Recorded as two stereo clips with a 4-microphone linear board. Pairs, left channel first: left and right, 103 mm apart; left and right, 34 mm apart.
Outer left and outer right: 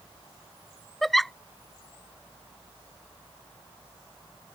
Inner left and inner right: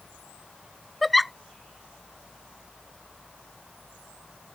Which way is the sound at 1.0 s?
Centre (ahead or behind).